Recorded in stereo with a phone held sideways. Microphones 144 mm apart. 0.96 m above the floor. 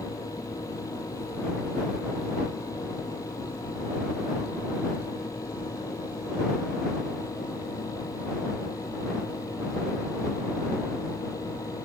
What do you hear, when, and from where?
0.0 s a fan: 25° left (ahead or behind)